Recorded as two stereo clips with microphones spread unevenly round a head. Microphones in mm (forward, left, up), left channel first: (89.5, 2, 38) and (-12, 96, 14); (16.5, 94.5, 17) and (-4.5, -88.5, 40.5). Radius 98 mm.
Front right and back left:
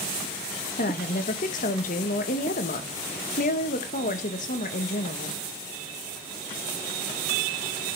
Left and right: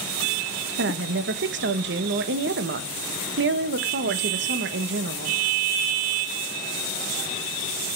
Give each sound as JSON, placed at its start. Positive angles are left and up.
{"t": 0.8, "sound": "a woman speaking", "azimuth_deg": -80, "distance_m": 1.2}